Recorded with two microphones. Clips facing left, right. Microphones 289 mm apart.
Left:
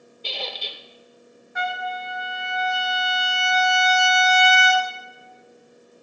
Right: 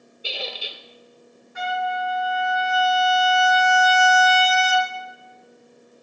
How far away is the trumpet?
About 1.2 m.